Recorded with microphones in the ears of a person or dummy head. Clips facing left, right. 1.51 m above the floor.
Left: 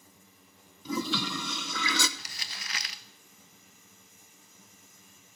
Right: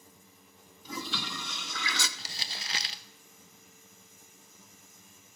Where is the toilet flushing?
70° left (ahead or behind), 1.0 m.